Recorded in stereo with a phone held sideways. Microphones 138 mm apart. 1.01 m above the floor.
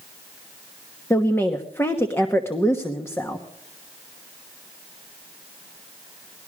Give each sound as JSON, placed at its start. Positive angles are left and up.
{"t": 1.1, "sound": "a woman speaking", "side_deg": 15, "distance_m": 1.2}